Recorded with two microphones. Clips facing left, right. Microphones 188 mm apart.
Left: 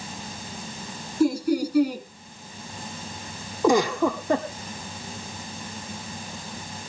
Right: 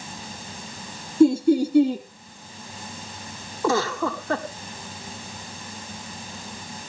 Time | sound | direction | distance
1.2 | laughter | 25° right (ahead or behind) | 1.4 m
3.6 | a giggle | 15° left (ahead or behind) | 1.7 m